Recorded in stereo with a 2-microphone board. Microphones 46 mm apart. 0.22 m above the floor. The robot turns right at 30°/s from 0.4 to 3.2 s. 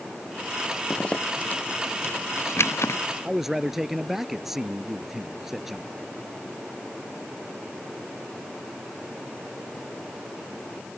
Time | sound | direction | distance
0.9 | a zipper | 20° left (ahead or behind) | ?
3.2 | a man speaking | 5° right (ahead or behind) | ?